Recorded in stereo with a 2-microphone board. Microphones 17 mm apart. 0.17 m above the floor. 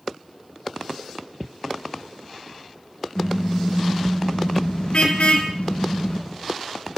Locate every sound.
3.1 s a car horn: 45° left (ahead or behind), 5.5 m; by 6.2 s 80° left, 4 m